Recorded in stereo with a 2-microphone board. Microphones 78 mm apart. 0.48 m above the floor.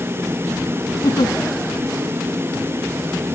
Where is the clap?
I don't hear a clap.